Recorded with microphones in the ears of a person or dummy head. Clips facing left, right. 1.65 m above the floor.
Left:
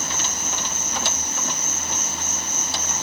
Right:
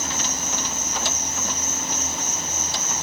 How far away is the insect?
About 1.0 m.